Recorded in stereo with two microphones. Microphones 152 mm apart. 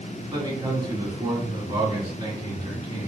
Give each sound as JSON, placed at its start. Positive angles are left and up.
{"t": 0.3, "sound": "a man speaking", "side_deg": -30, "distance_m": 1.8}